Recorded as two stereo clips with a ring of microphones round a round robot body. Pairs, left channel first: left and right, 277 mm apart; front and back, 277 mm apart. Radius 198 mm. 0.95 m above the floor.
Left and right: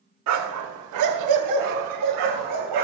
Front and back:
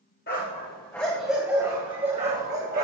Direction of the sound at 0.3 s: 70° right.